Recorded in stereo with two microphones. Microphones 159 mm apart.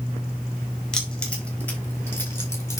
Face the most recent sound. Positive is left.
turn(degrees=20)  # may be behind; listen again after turning